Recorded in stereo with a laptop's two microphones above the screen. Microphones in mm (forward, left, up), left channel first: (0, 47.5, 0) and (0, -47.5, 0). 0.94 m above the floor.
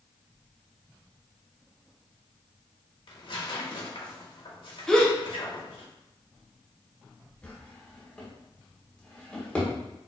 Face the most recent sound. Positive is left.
turn(degrees=10)  # may be behind; listen again after turning